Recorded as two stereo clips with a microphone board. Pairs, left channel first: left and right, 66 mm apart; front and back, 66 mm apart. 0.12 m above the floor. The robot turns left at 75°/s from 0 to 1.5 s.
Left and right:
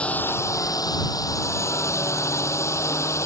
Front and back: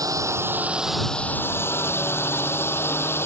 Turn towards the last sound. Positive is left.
turn(degrees=50)